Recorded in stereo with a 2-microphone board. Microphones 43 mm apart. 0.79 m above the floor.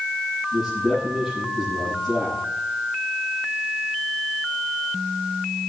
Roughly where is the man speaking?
Centre.